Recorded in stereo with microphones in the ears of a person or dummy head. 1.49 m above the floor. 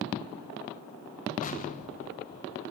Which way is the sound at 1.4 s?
40° left (ahead or behind).